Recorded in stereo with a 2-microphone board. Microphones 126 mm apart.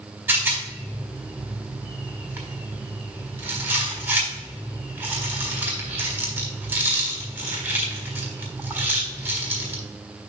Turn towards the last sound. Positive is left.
turn(degrees=-15)  # may be behind; listen again after turning